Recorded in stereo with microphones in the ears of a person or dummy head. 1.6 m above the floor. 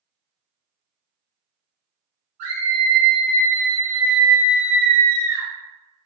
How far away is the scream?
About 1.6 m.